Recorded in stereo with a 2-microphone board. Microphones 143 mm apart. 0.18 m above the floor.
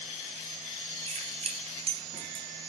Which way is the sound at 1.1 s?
45° right (ahead or behind).